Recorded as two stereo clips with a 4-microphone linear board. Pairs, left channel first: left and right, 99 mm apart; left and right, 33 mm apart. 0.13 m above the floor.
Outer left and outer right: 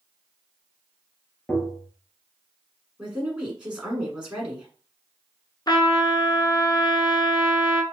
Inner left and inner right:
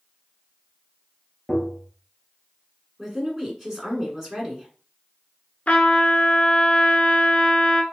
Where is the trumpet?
45° left (ahead or behind), 0.6 m.